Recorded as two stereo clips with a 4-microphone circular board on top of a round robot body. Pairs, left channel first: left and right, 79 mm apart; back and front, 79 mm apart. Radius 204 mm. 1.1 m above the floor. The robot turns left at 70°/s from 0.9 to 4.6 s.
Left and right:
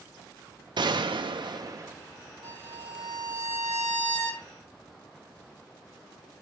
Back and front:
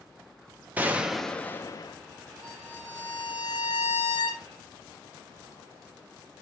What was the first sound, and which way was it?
A gunshot, 70° right.